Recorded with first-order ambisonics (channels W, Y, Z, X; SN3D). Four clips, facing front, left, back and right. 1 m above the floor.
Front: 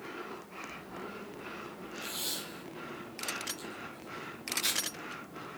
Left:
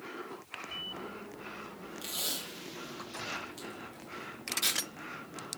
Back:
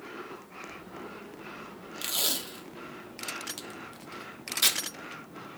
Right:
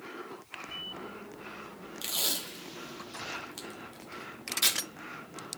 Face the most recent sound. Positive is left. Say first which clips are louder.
# right 5 dB, back 8 dB
turn(degrees=-155)